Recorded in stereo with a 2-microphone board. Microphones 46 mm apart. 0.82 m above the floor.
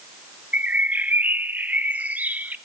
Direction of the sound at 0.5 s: 35° right (ahead or behind).